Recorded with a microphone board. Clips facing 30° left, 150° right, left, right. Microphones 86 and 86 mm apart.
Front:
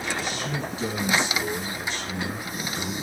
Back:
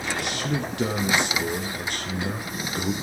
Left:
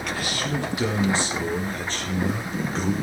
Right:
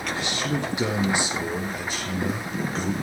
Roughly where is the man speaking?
Behind right.